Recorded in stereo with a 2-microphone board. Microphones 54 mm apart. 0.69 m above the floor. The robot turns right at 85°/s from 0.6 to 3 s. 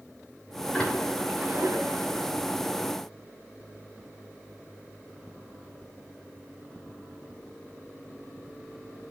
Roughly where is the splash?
Left.